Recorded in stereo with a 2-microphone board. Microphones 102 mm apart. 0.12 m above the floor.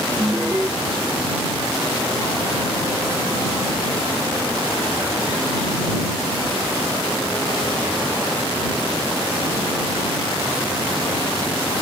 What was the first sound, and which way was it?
An alarm, 15° right (ahead or behind).